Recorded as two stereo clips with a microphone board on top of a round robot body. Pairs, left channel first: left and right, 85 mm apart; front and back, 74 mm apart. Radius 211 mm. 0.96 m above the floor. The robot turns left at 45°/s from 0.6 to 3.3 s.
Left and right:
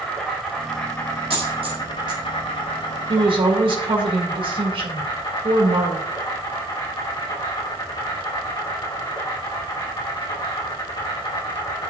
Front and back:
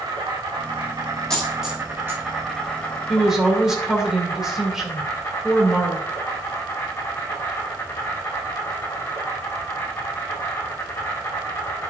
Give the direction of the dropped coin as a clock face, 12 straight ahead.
3 o'clock.